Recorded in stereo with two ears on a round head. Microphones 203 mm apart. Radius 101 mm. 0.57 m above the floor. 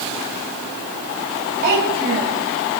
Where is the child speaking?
40° right (ahead or behind), 2.5 m.